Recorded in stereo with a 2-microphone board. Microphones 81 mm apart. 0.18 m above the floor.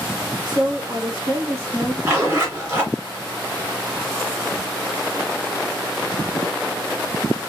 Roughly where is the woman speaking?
Right.